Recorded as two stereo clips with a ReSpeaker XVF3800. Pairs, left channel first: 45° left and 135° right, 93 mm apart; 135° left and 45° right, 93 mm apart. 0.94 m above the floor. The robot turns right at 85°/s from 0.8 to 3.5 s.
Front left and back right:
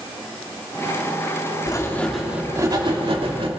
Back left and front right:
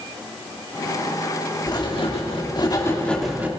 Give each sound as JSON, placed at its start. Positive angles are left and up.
{"t": 1.7, "sound": "writing", "azimuth_deg": 90, "distance_m": 2.5}